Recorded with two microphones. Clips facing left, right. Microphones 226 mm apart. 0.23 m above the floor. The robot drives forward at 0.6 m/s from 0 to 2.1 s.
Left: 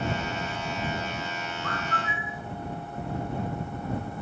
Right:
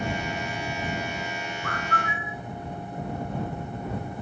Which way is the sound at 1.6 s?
45° right (ahead or behind).